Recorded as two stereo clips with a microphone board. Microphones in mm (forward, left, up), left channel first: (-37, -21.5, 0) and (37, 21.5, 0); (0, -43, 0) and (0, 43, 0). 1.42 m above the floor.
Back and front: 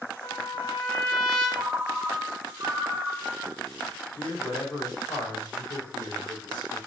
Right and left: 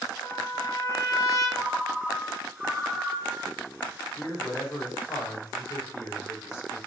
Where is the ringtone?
Straight ahead, 1.3 m.